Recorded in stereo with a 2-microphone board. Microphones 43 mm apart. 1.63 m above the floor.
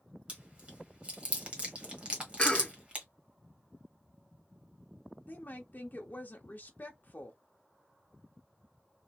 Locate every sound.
0.3 s chewing: 25° right (ahead or behind), 1.8 m
2.4 s a cough: 25° left (ahead or behind), 1.1 m
5.3 s a woman speaking: 50° left (ahead or behind), 0.9 m